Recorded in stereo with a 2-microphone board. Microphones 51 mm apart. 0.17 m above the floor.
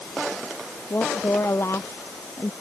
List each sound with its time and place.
0.9 s a woman speaking: 60° left (ahead or behind)